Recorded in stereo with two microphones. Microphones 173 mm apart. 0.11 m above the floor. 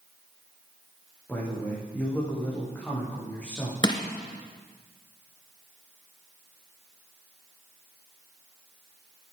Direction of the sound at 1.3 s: 10° left (ahead or behind).